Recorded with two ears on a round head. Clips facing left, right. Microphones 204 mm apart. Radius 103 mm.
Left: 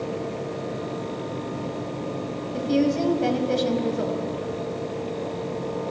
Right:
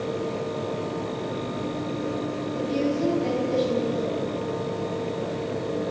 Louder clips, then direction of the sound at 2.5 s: Left 4 dB; 80° left.